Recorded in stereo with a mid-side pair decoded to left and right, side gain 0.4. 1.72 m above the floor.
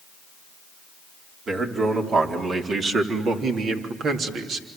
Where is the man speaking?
50° right, 4.5 m; by 4.7 s 80° right, 3 m.